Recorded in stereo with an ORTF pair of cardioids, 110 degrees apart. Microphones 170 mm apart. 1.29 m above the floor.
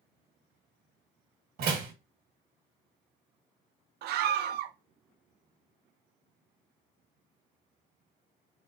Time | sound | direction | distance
1.6 | a door slam | 65° right | 1.3 m
4.0 | a scream | 70° right | 0.6 m